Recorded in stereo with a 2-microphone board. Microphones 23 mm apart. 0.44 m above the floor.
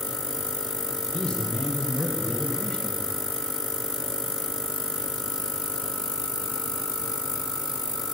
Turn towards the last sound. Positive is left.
turn(degrees=45)  # may be behind; listen again after turning